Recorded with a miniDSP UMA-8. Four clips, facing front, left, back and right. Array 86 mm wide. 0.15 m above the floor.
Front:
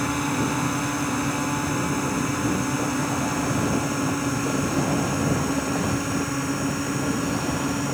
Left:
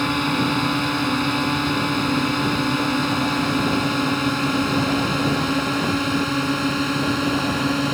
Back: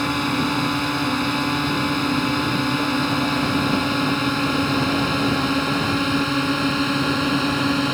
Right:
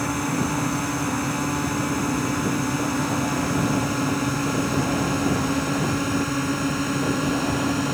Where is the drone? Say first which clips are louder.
Left 3 dB, back 3 dB; 130° left; by 8.0 s 155° left.